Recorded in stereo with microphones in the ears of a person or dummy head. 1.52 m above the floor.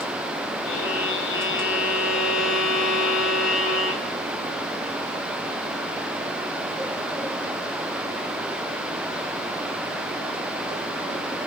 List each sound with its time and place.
0.6 s a violin: 65° left (ahead or behind), 3 m